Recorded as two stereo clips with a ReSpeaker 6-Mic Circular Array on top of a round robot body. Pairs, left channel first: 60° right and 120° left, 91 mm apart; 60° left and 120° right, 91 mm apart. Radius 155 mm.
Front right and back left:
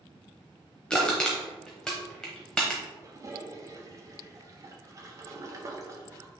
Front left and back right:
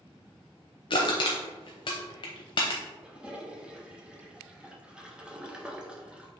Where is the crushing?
25° left, 0.6 m.